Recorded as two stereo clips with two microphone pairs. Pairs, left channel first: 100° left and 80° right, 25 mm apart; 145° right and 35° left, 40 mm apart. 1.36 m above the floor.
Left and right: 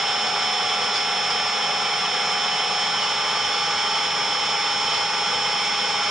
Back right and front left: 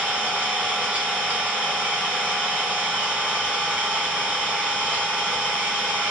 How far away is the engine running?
About 2 m.